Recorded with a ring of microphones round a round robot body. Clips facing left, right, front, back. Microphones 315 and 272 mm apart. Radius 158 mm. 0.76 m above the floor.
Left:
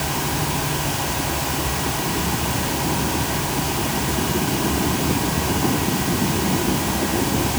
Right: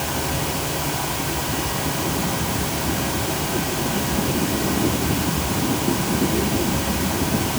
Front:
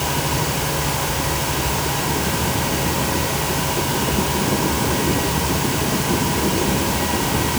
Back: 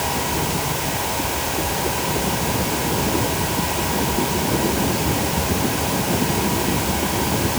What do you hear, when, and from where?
Only background noise.